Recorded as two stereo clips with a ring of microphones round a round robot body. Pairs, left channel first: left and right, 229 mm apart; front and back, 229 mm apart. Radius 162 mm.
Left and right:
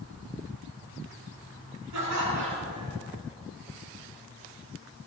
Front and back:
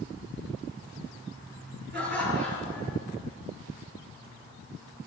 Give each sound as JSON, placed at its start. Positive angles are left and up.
{"t": 1.9, "sound": "laughter", "azimuth_deg": -115, "distance_m": 6.0}